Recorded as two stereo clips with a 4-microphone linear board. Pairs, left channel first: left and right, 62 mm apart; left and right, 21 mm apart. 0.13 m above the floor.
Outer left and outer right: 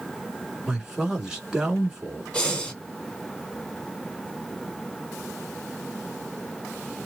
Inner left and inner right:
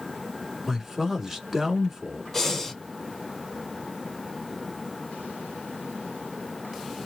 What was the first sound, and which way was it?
A man speaking, 10° right (ahead or behind).